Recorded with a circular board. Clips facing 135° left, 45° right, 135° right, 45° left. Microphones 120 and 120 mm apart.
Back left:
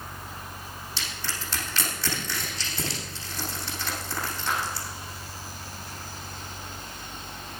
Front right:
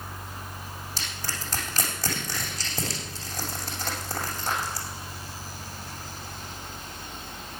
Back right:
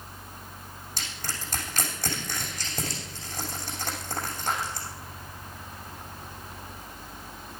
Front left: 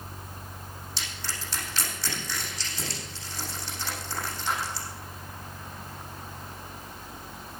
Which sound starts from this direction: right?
Crushing, at 1.0 s.